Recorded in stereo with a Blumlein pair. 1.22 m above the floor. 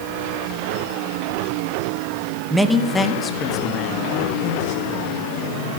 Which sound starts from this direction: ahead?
A man speaking, at 2.5 s.